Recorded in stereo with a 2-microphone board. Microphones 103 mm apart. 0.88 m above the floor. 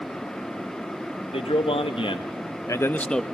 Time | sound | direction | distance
1.3 | a man speaking | 65° left (ahead or behind) | 1.7 m